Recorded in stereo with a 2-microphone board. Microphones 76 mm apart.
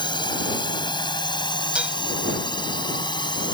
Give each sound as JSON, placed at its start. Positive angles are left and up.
{"t": 0.0, "sound": "a drone", "side_deg": 75}
{"t": 1.8, "sound": "dishes clattering", "side_deg": -15}